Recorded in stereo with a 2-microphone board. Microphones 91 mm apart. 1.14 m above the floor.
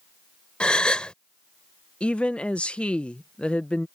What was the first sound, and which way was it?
A gasp, 10° left (ahead or behind).